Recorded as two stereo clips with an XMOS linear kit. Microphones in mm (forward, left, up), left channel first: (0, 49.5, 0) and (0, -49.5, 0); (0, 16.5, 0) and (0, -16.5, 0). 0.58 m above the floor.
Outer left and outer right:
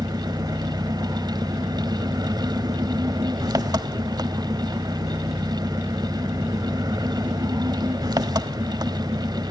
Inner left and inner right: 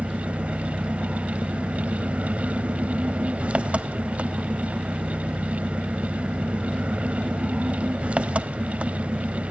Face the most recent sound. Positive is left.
turn(degrees=-40)  # may be behind; listen again after turning